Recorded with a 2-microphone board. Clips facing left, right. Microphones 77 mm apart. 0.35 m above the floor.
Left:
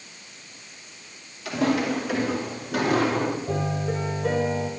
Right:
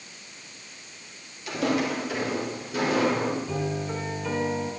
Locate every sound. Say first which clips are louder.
1.4 s footsteps: left 2 dB; 85° left, 9.5 m; by 3.4 s 75° left (ahead or behind), 8.5 m
3.5 s a piano: left 2 dB; 60° left (ahead or behind), 4 m